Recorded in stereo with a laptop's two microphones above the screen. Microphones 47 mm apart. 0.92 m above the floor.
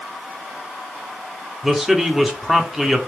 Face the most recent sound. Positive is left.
turn(degrees=-10)  # may be behind; listen again after turning